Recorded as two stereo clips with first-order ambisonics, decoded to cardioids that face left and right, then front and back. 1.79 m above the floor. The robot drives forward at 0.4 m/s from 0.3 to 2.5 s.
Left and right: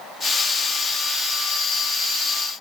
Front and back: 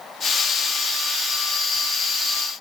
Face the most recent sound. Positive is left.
No sound to turn to.